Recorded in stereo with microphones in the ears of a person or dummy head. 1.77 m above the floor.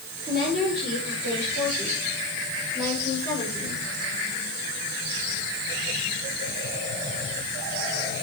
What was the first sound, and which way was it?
A woman speaking, 45° right (ahead or behind).